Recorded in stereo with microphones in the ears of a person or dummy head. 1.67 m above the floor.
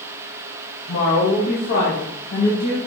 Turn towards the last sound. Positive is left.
turn(degrees=75)  # may be behind; listen again after turning